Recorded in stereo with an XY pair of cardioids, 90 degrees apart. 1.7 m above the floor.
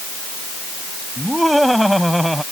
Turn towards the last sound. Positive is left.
turn(degrees=-5)